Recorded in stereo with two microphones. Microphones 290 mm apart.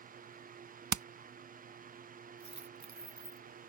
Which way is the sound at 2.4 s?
75° right (ahead or behind).